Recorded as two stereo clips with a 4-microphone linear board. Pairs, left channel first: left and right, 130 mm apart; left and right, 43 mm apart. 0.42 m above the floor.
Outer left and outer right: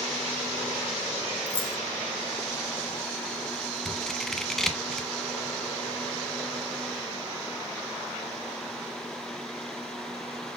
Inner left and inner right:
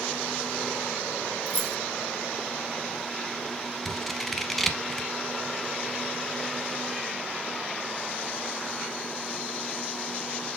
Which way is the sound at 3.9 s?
Centre (ahead or behind).